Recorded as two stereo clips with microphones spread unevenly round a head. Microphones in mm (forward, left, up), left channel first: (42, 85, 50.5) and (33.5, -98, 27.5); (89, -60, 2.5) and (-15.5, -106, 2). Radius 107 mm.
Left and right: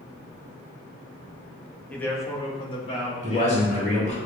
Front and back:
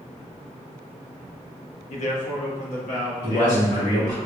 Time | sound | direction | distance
1.9 | a man speaking | straight ahead | 0.9 m
3.2 | a man speaking | 30° left | 1.6 m